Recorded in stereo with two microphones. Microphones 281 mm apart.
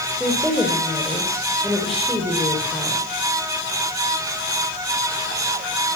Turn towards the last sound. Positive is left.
turn(degrees=0)  # may be behind; listen again after turning